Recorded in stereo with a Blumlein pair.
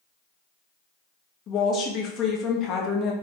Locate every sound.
1.5 s a woman speaking: 30° left, 0.7 m